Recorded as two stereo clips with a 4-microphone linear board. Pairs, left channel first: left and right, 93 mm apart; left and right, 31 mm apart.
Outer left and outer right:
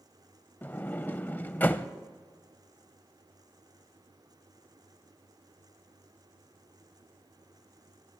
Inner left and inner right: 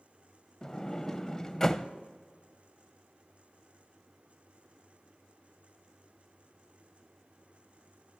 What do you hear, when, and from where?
0.6 s a sliding door: 20° left (ahead or behind), 0.5 m